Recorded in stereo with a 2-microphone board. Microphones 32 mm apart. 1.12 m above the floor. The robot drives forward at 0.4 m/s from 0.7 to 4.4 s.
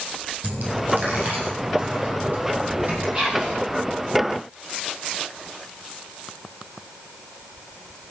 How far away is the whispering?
About 8 m.